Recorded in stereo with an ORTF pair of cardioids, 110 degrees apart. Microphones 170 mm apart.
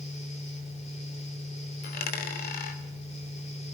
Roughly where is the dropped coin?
Ahead left.